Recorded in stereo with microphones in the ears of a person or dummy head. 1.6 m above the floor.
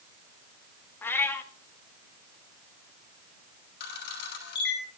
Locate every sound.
1.0 s a cat meowing: 15° left (ahead or behind), 1.6 m
3.8 s a camera shutter: 70° left (ahead or behind), 6.5 m